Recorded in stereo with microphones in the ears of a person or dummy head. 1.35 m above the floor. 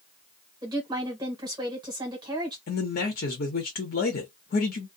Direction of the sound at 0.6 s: 20° right (ahead or behind).